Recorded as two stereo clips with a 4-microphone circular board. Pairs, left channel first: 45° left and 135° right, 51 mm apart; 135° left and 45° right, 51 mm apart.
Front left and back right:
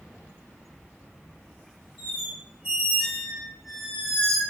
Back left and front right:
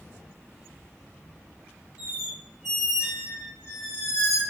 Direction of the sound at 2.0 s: 135° left.